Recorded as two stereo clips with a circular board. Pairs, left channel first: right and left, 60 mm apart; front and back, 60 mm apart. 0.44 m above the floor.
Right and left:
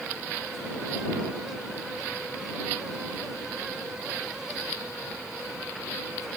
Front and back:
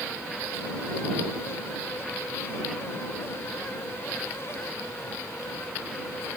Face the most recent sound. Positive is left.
No sound to turn to.